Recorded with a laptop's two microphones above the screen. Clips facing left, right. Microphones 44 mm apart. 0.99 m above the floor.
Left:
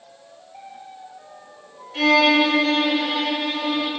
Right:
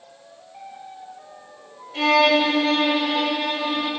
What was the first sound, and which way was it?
A violin, 5° left (ahead or behind).